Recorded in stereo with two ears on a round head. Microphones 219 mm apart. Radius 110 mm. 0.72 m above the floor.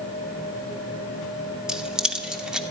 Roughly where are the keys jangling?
Centre.